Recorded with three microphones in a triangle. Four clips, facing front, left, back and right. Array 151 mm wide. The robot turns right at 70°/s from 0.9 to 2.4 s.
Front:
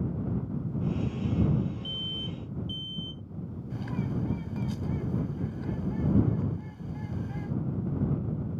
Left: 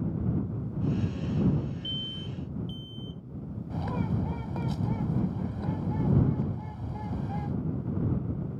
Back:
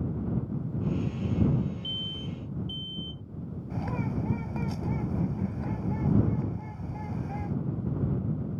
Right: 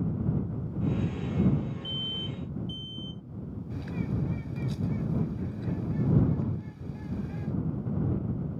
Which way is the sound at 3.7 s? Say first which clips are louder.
Left 3 dB, back 1 dB; 125° left.